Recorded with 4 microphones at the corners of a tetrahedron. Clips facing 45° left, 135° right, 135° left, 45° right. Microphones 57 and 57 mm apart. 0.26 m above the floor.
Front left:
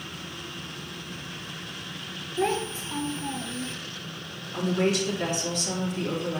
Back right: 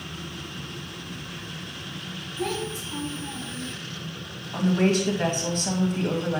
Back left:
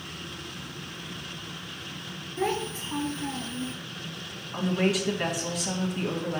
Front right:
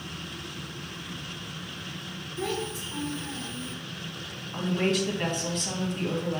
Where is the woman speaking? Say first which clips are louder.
Back right 3 dB, back left 1 dB; 145° right, 1.9 m.